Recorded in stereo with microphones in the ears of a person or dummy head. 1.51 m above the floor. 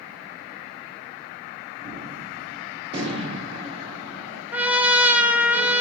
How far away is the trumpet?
About 0.6 m.